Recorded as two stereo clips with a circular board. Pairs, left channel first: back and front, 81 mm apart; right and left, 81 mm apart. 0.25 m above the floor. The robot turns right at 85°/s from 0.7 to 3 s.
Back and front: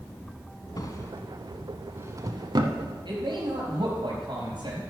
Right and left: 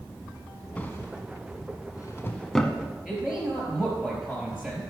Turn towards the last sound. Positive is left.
turn(degrees=10)